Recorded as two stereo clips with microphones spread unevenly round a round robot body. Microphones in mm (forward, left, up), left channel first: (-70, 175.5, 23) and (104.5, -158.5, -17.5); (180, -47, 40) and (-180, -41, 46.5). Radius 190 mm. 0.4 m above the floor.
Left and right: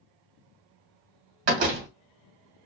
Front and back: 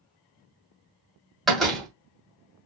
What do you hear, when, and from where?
1.5 s a door slam: 90° right, 2.0 m